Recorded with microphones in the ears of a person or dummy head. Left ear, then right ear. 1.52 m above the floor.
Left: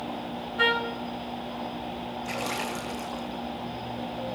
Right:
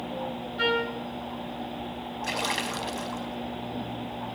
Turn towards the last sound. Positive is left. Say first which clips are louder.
# right 3 dB
turn(degrees=-65)  # may be behind; listen again after turning